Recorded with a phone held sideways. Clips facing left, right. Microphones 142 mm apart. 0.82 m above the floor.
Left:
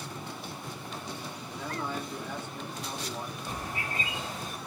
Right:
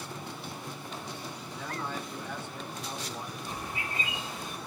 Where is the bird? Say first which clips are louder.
Left 1 dB; 40° left (ahead or behind), 1.8 m.